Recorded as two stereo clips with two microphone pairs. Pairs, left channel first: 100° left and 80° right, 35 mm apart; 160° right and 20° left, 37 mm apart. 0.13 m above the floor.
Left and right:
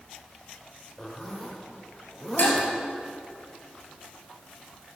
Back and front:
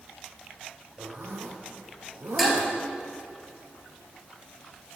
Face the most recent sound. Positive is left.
turn(degrees=105)